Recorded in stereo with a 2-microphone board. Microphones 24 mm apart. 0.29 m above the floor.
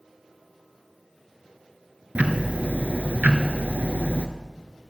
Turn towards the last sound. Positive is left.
turn(degrees=-85)